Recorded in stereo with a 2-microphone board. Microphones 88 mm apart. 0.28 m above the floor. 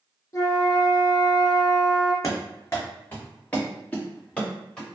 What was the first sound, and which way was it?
A flute, 35° left (ahead or behind).